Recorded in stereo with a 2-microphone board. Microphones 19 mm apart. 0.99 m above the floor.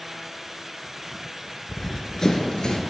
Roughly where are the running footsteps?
Centre.